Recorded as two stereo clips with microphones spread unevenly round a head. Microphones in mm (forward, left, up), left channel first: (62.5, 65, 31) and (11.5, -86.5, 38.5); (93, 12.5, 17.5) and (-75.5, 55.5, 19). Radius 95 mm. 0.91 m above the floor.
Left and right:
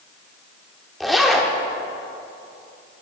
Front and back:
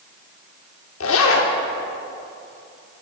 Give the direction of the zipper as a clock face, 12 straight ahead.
1 o'clock.